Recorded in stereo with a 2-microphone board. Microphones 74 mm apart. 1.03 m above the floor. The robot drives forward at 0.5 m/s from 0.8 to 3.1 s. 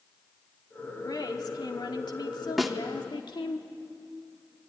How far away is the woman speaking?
About 2.5 m.